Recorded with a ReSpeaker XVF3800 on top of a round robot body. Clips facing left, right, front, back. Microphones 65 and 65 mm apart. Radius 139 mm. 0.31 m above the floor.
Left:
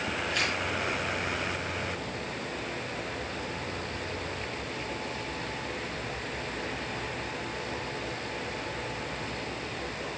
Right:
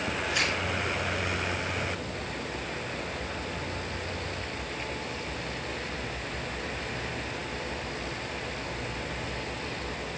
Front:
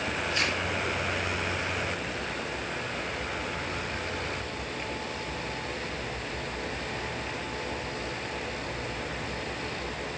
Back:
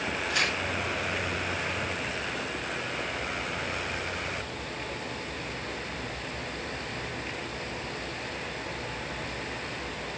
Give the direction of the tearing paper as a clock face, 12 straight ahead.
6 o'clock.